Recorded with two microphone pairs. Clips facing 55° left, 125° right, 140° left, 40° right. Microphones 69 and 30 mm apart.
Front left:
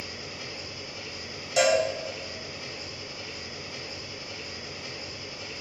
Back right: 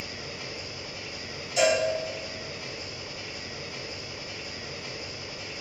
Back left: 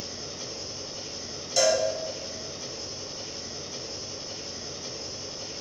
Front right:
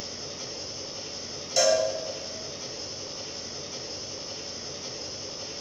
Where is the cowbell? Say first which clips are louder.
Front left 1 dB, front right 1 dB; 45° left, 1.0 m.